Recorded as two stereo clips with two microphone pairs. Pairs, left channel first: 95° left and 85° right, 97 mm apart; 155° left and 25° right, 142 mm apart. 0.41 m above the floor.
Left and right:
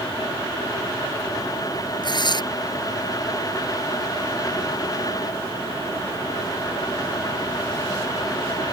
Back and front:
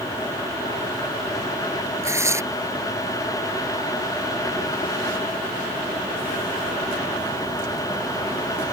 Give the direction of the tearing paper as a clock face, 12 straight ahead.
10 o'clock.